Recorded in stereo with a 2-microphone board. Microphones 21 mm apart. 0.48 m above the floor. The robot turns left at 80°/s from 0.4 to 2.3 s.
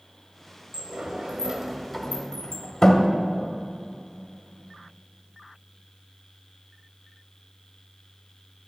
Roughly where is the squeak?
I don't hear a squeak.